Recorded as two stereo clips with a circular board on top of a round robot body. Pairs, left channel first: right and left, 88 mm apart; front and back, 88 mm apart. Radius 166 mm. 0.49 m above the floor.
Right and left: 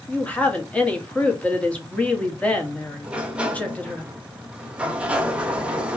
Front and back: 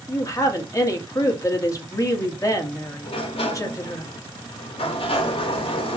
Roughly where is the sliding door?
Ahead.